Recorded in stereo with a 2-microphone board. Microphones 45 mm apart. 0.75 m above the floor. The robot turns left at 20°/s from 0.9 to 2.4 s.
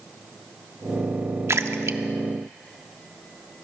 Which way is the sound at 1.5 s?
70° right (ahead or behind).